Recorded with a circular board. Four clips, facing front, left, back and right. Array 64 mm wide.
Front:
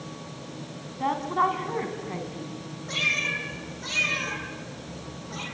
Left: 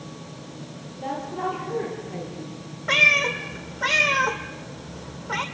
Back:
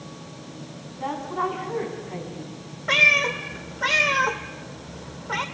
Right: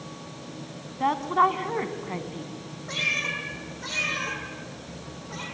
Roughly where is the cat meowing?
Behind left.